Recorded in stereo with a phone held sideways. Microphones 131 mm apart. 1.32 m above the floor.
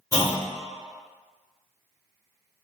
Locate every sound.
0.1 s a clunk: 25° left (ahead or behind), 1.2 m